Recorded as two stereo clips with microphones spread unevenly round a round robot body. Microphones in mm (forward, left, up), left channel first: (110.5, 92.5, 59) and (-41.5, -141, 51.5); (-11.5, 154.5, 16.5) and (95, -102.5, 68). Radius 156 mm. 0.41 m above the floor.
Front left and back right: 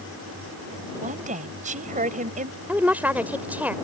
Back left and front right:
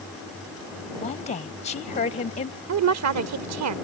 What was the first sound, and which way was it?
A woman speaking, 175° left.